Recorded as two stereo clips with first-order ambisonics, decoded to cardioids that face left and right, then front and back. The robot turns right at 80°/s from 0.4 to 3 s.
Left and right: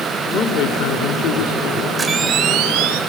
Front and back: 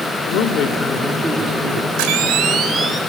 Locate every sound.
0.3 s a man speaking: 35° left, 1.9 m; by 1.9 s 155° left, 1.9 m
2.0 s a camera shutter: 175° right, 4 m; by 3.0 s 95° right, 4 m